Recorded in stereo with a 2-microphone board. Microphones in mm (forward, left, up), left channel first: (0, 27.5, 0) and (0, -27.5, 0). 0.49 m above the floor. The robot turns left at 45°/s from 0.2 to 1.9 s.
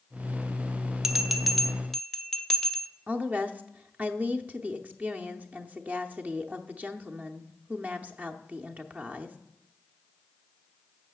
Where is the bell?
10° right (ahead or behind), 0.6 m; by 2.9 s 5° left (ahead or behind), 0.6 m.